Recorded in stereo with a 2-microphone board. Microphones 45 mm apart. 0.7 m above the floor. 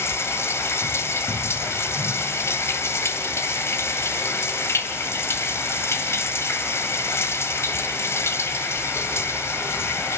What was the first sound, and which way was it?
Running water, 80° left.